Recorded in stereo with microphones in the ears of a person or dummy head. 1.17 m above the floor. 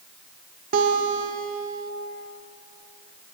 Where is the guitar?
45° right (ahead or behind), 0.8 m.